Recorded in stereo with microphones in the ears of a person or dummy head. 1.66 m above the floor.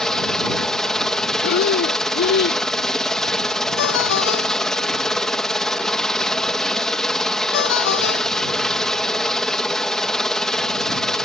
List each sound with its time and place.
0.0 s a helicopter: 5° left (ahead or behind)
1.4 s breathing: 60° left (ahead or behind)
3.8 s a ringtone: 65° left (ahead or behind)